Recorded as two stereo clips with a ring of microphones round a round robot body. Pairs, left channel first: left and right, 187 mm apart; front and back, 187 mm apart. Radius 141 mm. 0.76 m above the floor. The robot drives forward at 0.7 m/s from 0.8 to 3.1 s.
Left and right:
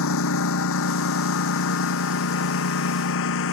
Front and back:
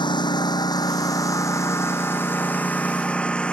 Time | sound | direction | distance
0.0 | a lawn mower | 65° left | ?